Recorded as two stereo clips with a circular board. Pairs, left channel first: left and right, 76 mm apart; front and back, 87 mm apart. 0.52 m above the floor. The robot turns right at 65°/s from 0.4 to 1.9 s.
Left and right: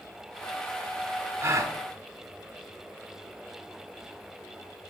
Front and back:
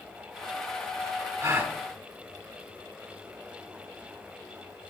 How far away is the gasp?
About 1.0 m.